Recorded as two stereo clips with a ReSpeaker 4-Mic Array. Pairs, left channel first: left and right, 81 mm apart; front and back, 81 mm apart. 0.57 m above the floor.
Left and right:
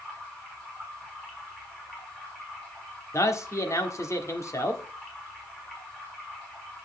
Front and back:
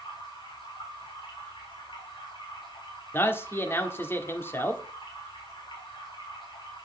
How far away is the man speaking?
About 1.2 m.